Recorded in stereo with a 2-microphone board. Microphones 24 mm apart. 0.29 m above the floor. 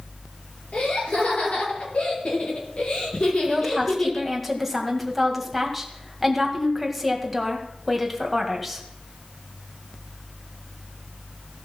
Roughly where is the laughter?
Left.